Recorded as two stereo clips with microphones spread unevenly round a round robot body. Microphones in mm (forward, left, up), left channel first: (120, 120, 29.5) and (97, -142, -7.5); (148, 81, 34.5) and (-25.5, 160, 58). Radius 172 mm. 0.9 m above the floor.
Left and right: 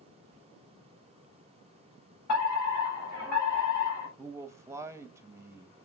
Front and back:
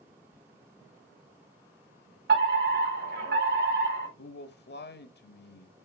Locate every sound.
0.3 s whispering: 140° right, 2.5 m
2.3 s a fire alarm: 125° left, 5 m
4.2 s a man speaking: 20° right, 1.3 m